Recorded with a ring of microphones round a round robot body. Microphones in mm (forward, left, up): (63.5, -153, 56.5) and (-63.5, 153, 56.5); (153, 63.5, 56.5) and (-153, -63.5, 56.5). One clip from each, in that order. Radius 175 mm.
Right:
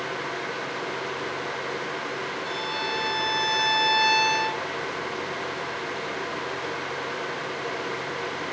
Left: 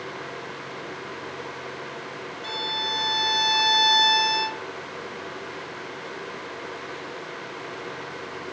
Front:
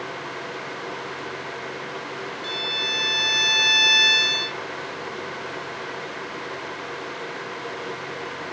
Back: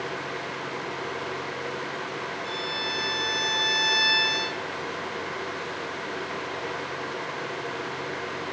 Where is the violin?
50° left, 0.7 m.